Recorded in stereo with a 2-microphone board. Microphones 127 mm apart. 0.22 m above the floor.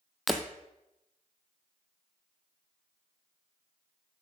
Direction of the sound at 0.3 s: Centre (ahead or behind).